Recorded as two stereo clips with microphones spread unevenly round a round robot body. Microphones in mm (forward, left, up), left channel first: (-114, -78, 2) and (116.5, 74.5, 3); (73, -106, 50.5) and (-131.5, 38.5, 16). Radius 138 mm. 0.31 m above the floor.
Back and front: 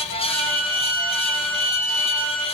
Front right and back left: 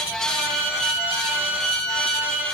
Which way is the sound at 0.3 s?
165° right.